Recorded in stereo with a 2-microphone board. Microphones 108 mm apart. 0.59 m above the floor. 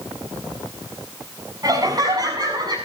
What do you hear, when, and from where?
1.6 s laughter: 35° right (ahead or behind), 6 m; by 2.8 s 40° right (ahead or behind), 6.5 m